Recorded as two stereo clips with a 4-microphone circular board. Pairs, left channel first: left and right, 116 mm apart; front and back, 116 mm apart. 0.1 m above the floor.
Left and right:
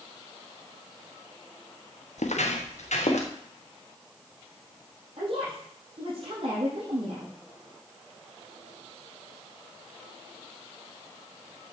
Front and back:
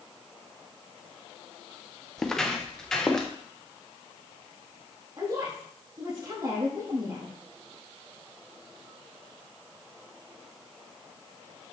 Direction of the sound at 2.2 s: 85° left.